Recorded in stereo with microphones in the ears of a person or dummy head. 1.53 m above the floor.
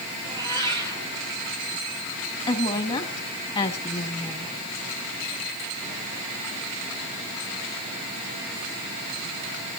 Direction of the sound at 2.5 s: 30° left (ahead or behind).